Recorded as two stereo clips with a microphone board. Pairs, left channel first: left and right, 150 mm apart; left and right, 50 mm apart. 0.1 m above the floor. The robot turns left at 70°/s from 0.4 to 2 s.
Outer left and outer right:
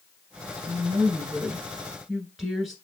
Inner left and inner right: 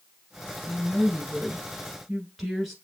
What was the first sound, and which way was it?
A woman speaking, 20° right (ahead or behind).